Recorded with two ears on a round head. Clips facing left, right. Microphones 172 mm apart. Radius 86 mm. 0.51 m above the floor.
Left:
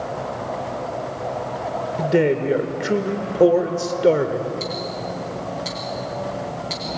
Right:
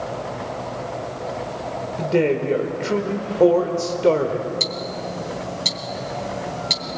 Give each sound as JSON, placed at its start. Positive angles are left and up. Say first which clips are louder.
{"t": 2.0, "sound": "a man speaking", "louder": "left 1 dB", "side_deg": 15, "distance_m": 1.2}
{"t": 4.6, "sound": "ticking", "louder": "left 1 dB", "side_deg": -60, "distance_m": 2.0}